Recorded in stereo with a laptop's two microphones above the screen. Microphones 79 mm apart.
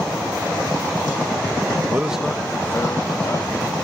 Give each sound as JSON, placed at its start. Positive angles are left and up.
{"t": 1.9, "sound": "a man speaking", "side_deg": -30}